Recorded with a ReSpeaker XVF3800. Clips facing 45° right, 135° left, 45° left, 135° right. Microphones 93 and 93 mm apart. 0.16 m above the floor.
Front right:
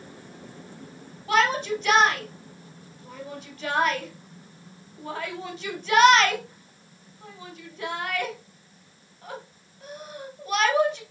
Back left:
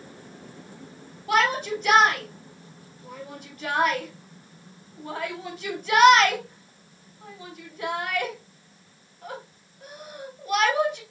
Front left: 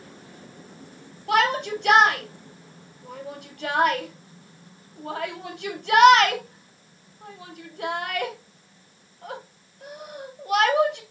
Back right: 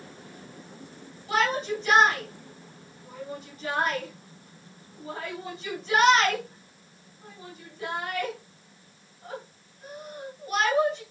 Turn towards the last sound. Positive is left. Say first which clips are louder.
# even, front left 4 dB
turn(degrees=50)